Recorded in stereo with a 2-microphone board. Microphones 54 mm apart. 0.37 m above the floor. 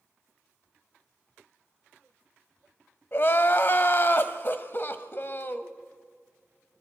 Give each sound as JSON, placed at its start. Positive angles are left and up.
{"t": 3.1, "sound": "crying", "side_deg": 45, "distance_m": 1.0}